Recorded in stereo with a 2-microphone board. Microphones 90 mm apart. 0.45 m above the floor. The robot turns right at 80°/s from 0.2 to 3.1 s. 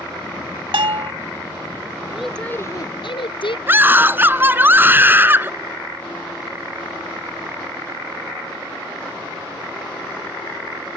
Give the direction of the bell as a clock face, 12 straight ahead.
3 o'clock.